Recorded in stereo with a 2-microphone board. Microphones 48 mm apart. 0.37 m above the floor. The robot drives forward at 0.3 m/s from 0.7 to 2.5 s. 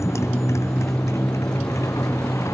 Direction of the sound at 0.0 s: 75° left (ahead or behind).